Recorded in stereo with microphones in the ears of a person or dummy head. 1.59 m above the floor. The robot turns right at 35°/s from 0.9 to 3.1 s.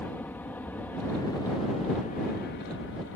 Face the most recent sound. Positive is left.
turn(degrees=85)